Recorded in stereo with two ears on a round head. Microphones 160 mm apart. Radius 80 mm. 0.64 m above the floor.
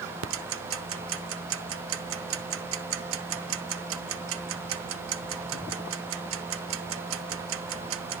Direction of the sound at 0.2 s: 85° right.